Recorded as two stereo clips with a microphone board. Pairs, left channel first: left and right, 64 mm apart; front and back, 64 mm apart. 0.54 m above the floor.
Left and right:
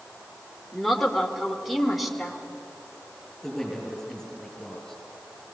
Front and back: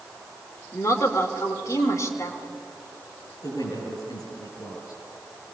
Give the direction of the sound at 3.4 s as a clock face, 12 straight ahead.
12 o'clock.